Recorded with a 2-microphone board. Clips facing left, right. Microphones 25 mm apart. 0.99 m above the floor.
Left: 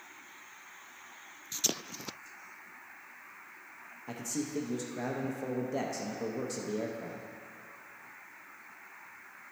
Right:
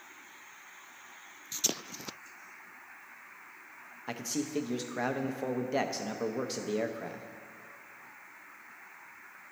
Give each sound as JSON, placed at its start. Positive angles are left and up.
{"t": 4.1, "sound": "a man speaking", "side_deg": -50, "distance_m": 0.5}